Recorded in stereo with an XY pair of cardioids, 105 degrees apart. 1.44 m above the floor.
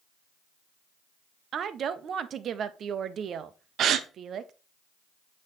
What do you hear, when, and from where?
1.5 s a woman speaking: 55° right, 0.7 m
3.8 s a gasp: 65° right, 0.7 m